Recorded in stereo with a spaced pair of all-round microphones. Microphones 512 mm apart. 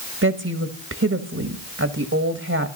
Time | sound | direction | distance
0.2 | a woman speaking | 25° right (ahead or behind) | 1.2 m